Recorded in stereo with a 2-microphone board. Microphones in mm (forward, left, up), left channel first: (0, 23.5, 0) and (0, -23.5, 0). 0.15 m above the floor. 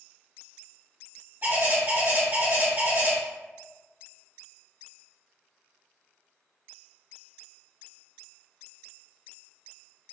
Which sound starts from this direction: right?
A bird, at 1.4 s.